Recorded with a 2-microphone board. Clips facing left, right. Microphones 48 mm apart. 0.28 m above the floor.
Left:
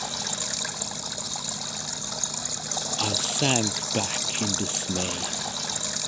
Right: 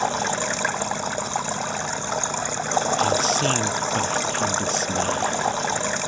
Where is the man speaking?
20° left (ahead or behind).